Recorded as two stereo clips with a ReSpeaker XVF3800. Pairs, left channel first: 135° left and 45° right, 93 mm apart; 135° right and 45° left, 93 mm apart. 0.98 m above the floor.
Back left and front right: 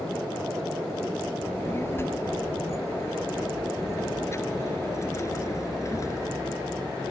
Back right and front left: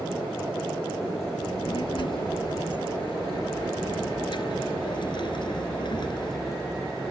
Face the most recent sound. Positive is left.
turn(degrees=-170)